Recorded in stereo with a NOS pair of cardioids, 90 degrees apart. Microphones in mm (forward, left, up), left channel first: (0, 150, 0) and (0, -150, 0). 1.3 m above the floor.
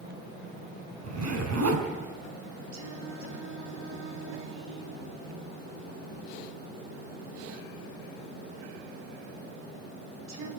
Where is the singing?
65° right, 4.5 m.